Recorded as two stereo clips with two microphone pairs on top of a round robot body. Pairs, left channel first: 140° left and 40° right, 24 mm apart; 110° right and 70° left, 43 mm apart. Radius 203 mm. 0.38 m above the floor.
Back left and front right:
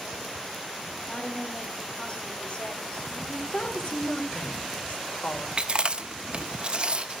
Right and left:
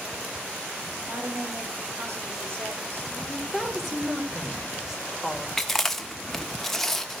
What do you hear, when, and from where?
1.0 s a woman speaking: 95° left, 3.5 m
3.2 s a woman speaking: 160° left, 2.5 m
5.6 s chewing: 25° right, 1.8 m